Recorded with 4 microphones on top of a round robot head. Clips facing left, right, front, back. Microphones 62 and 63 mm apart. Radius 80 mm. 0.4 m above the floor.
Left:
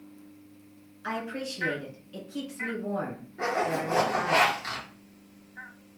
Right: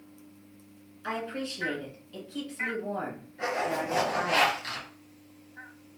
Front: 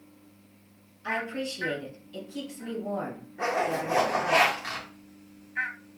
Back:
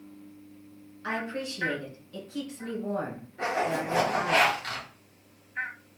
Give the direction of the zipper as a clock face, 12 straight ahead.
10 o'clock.